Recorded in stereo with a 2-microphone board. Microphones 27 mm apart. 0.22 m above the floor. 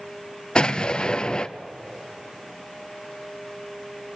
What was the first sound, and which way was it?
An explosion, 30° left (ahead or behind).